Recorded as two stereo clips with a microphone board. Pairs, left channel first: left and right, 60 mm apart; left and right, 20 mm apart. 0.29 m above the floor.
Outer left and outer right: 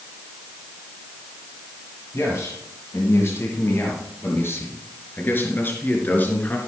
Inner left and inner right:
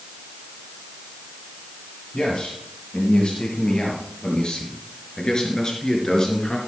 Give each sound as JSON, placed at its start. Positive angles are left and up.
{"t": 2.1, "sound": "a man speaking", "side_deg": 55, "distance_m": 6.0}